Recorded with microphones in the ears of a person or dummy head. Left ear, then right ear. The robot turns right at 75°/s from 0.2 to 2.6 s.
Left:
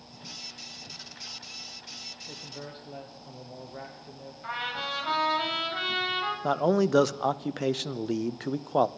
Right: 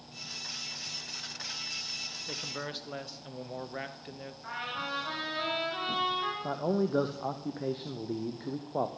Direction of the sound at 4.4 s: 30° left (ahead or behind).